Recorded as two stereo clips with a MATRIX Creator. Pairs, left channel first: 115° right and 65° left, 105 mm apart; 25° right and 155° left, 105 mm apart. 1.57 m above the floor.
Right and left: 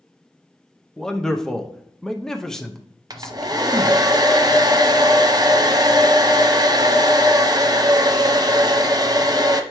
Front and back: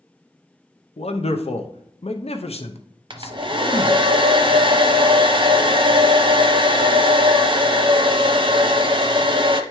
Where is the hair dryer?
120° left, 0.7 m.